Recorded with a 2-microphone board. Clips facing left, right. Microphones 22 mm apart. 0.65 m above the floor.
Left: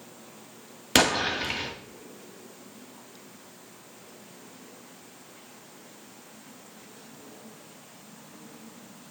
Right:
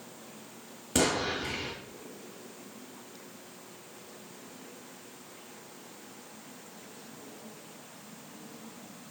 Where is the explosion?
85° left, 1.5 m.